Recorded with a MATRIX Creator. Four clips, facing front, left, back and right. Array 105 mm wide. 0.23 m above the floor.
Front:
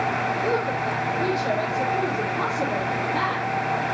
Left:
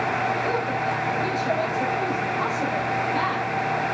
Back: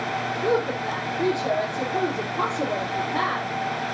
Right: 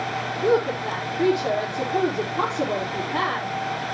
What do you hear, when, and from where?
0.4 s a woman speaking: 105° right, 5 m